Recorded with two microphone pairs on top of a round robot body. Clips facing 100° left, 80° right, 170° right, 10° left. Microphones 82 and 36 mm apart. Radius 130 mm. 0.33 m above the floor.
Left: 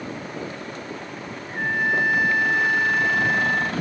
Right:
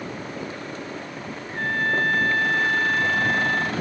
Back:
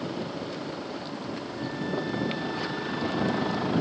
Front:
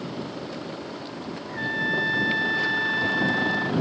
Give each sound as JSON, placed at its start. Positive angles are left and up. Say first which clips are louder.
{"t": 1.5, "sound": "a trumpet", "louder": "left 1 dB, front 8 dB", "azimuth_deg": 20}